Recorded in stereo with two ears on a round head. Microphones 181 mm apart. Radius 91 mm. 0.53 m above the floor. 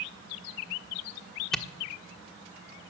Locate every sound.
1.5 s a camera shutter: centre (ahead or behind), 1.3 m